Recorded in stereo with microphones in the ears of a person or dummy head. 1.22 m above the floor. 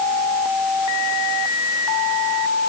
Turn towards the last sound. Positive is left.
No sound to turn to.